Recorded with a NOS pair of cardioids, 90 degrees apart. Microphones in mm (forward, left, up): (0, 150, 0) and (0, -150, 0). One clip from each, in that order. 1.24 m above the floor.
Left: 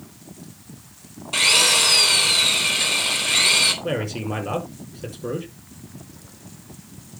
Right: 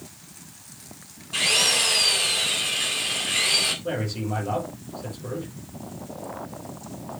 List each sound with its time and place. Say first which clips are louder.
1.3 s a drill: left 4 dB; 55° left, 3.5 m
3.8 s a man speaking: left 3 dB; 55° left, 5.5 m